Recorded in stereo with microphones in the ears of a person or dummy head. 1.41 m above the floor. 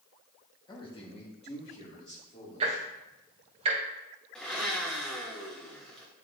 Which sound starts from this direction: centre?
A blender, at 4.3 s.